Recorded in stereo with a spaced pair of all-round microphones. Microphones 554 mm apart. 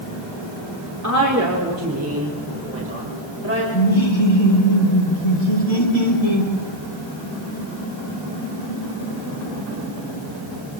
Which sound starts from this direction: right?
A woman speaking, at 1.0 s.